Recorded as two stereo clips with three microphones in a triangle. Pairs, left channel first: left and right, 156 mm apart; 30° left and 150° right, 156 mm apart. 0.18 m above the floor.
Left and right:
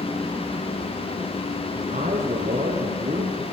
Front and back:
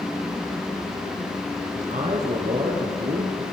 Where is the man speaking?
115° right, 2 m; by 3.4 s 130° right, 3 m.